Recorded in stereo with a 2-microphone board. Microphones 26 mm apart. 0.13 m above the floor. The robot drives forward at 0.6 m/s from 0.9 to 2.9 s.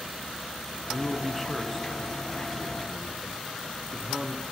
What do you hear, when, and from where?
0.9 s a man speaking: 5° right (ahead or behind), 1.3 m